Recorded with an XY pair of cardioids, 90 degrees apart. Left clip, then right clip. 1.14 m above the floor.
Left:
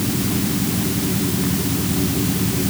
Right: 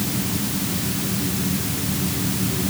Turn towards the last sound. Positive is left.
No sound to turn to.